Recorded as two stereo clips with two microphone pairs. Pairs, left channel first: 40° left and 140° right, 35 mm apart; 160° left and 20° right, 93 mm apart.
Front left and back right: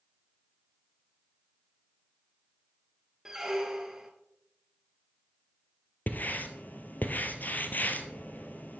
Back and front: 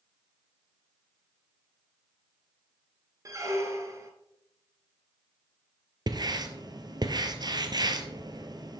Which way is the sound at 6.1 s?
10° left.